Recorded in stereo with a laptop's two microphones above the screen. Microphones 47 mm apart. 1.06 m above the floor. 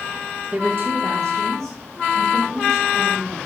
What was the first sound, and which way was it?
A woman speaking, 30° right (ahead or behind).